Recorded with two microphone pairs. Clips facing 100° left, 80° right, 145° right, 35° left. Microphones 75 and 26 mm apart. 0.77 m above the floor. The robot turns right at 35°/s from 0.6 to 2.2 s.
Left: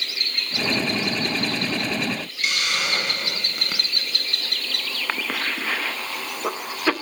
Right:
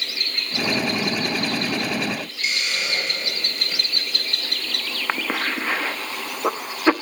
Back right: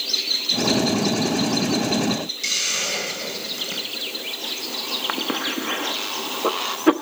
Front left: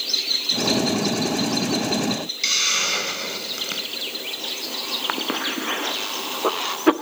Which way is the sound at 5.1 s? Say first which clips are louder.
Right 3 dB, even; 25° right.